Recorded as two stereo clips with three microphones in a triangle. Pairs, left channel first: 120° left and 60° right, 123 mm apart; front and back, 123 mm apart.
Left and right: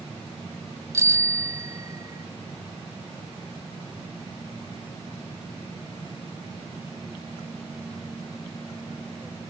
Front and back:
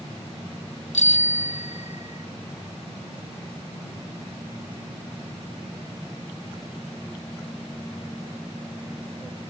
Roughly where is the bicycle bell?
Ahead.